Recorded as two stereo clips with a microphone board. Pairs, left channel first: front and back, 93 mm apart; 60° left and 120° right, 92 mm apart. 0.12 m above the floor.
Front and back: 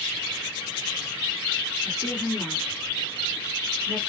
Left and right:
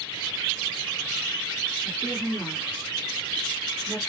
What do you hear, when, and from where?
1.9 s a woman speaking: 35° left, 1.8 m; by 4.0 s straight behind, 1.8 m